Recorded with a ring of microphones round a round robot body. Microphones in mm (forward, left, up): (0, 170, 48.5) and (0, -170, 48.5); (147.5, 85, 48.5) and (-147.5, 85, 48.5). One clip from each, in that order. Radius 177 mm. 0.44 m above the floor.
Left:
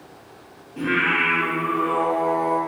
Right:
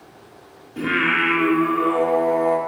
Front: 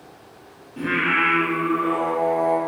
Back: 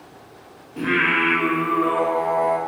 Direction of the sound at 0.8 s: 115° right.